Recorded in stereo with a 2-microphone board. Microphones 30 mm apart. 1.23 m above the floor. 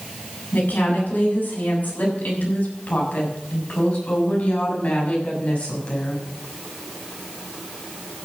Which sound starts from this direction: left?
A woman speaking, at 0.5 s.